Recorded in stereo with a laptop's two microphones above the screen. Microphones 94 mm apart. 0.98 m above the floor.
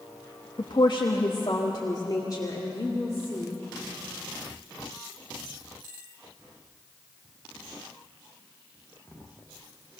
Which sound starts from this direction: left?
A woman speaking, at 0.6 s.